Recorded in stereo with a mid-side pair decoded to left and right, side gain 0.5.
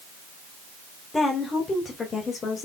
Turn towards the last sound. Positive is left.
turn(degrees=45)